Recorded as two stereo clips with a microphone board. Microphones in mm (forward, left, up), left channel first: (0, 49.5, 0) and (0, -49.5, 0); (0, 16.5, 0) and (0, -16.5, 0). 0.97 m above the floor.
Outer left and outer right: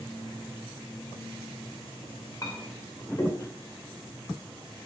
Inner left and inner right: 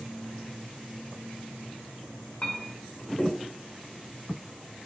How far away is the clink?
About 2 m.